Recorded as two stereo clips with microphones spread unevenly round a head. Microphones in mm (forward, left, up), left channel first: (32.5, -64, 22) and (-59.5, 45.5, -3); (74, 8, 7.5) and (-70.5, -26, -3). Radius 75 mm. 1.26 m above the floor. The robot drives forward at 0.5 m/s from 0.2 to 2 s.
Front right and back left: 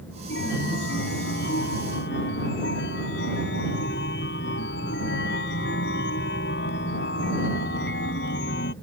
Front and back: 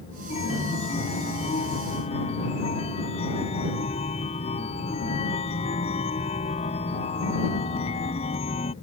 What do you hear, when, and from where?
0.3 s a chime: 30° right; by 8.7 s 35° right